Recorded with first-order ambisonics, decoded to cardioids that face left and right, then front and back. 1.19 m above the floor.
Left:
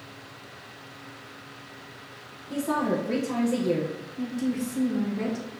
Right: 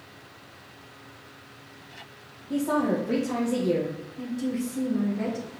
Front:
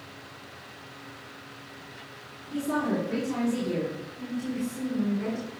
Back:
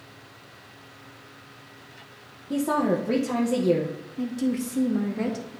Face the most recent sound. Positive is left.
turn(degrees=175)